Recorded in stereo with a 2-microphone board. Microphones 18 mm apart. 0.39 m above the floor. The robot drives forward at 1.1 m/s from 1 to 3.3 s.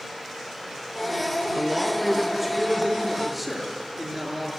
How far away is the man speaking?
About 4 m.